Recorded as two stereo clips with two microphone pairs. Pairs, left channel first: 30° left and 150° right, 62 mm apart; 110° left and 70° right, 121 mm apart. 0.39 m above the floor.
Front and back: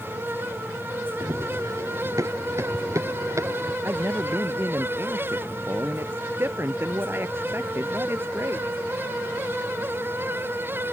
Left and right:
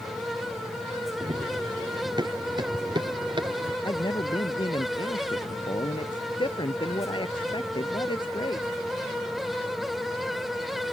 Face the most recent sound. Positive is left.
turn(degrees=160)